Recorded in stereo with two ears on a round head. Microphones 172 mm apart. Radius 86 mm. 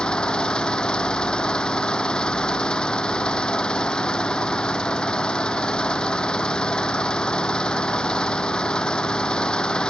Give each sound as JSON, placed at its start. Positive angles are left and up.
{"t": 0.0, "sound": "an engine running", "side_deg": 5}